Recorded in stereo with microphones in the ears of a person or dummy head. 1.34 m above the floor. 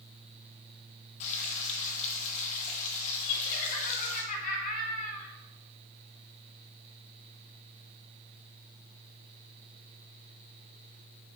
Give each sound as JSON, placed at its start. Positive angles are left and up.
{"t": 1.2, "sound": "frying", "side_deg": 40, "distance_m": 1.7}
{"t": 3.2, "sound": "laughter", "side_deg": 45, "distance_m": 3.0}